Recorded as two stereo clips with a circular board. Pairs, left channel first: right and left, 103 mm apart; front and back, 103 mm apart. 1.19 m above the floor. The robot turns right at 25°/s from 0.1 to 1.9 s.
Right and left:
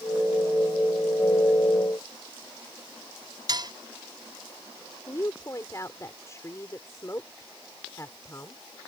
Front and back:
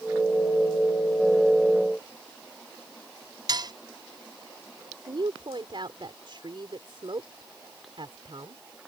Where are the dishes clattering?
135° left.